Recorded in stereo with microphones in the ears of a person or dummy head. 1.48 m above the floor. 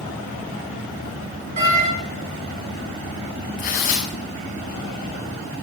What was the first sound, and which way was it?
A door slam, 50° right (ahead or behind).